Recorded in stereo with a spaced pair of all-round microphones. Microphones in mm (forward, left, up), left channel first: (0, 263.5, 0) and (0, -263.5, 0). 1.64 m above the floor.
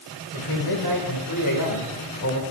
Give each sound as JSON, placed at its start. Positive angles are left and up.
{"t": 0.3, "sound": "a man speaking", "side_deg": 45, "distance_m": 5.5}